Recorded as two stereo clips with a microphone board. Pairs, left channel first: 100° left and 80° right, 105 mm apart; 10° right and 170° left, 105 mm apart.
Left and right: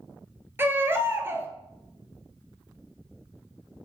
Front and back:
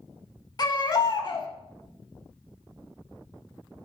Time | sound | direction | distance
0.6 | a baby crying | 25° right | 0.6 m